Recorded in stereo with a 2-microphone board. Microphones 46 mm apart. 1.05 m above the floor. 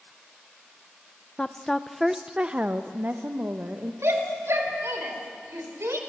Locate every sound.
1.4 s a woman speaking: 20° left (ahead or behind), 0.7 m; by 3.9 s 45° right (ahead or behind), 1.1 m
4.0 s a shout: 85° right, 3.5 m